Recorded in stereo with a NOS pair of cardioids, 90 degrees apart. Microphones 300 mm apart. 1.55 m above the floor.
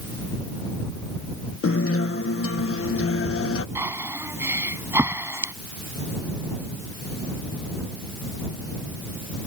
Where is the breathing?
10° right.